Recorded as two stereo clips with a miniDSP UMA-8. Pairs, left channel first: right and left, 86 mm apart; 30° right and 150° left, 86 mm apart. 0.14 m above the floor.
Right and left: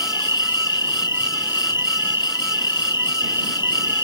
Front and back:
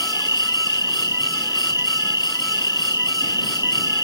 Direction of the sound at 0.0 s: 65° right.